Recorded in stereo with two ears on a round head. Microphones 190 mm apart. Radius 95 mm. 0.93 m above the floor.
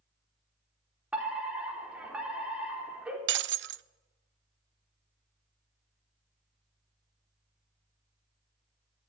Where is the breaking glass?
60° right (ahead or behind), 0.6 m.